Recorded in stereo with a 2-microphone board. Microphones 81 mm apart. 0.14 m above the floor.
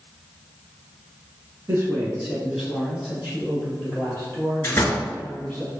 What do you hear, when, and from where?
1.7 s a man speaking: 30° right (ahead or behind), 1.2 m; by 5.6 s 25° left (ahead or behind), 4 m
4.6 s a door slam: 30° left (ahead or behind), 1.4 m